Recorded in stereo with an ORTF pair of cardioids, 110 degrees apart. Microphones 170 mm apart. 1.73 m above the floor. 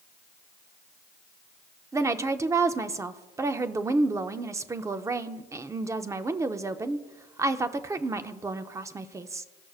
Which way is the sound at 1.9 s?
20° right.